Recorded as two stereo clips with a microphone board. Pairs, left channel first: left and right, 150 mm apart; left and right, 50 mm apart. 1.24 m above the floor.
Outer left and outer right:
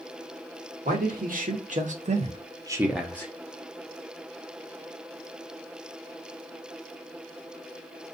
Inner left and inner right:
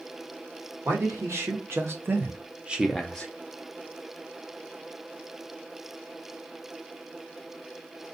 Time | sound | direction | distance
0.8 | a man speaking | 70° right (ahead or behind) | 1.3 m